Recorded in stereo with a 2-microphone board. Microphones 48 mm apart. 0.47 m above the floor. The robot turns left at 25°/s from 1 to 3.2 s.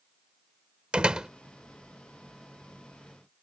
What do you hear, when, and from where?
0.9 s a door slam: 20° right (ahead or behind); by 1.3 s 15° right (ahead or behind)